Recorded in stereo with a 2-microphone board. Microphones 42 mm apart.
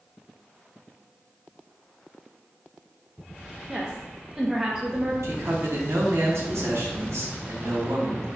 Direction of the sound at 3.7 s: 15° right (ahead or behind).